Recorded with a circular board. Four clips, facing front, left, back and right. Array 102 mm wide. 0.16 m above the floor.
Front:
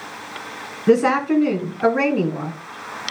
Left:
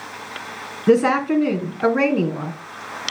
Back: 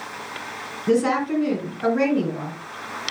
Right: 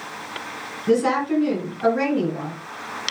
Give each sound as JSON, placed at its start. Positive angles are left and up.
{"t": 0.9, "sound": "a woman speaking", "azimuth_deg": 50, "distance_m": 1.6}